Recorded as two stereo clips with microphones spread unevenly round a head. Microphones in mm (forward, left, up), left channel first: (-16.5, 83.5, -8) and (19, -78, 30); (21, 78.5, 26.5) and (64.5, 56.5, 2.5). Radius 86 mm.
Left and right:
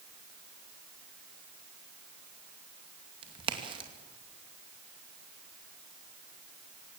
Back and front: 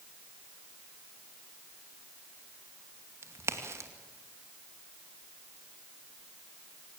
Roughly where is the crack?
Ahead.